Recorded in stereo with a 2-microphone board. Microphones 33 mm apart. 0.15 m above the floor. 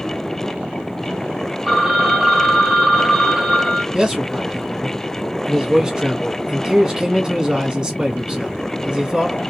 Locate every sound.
1.7 s a phone ringing: 10° right (ahead or behind), 0.6 m
3.9 s a man speaking: 25° right (ahead or behind), 1.1 m